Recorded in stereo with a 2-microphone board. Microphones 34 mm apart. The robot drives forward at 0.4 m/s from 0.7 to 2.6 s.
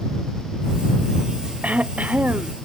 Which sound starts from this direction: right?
Throat clearing, at 1.6 s.